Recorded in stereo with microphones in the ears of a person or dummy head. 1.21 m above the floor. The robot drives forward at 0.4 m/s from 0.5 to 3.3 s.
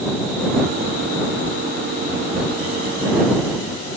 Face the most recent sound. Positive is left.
No sound to turn to.